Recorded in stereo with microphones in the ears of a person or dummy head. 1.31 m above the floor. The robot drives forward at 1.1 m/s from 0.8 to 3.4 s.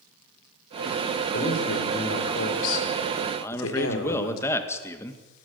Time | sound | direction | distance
1.3 | a man speaking | 55° left (ahead or behind) | 5.5 m
3.4 | a man speaking | 15° left (ahead or behind) | 2.0 m